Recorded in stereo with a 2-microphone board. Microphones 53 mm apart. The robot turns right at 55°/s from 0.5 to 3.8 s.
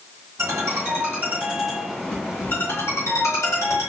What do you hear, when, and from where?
0.4 s a ringtone: 65° right, 2.5 m; by 3.9 s 115° left, 2.5 m